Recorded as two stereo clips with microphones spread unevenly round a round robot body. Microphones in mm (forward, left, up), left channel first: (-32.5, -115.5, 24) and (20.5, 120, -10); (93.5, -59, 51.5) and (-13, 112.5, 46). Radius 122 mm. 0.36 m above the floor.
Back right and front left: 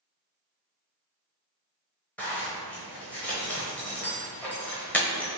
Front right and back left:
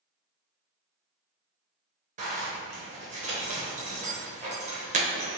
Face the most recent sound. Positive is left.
turn(degrees=170)